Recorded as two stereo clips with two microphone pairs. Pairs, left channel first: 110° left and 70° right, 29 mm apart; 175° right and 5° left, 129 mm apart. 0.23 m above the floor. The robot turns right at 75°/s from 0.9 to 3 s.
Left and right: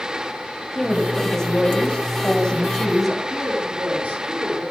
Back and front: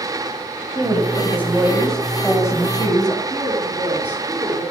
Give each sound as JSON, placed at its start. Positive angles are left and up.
{"t": 0.8, "sound": "a woman speaking", "azimuth_deg": 25, "distance_m": 1.2}
{"t": 3.3, "sound": "a woman speaking", "azimuth_deg": -70, "distance_m": 4.0}